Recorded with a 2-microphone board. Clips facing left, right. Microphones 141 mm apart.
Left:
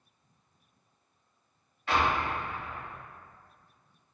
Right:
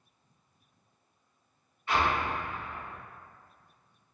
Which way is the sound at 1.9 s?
80° left.